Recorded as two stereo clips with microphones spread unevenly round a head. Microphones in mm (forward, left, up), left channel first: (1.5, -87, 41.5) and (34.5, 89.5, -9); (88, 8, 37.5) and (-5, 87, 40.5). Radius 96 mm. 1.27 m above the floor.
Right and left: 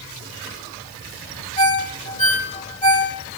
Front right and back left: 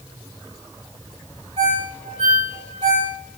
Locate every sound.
1.6 s a ringtone: 155° right, 2.5 m